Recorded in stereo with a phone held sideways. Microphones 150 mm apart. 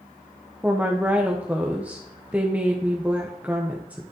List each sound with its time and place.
0.6 s a woman speaking: 10° right (ahead or behind), 0.8 m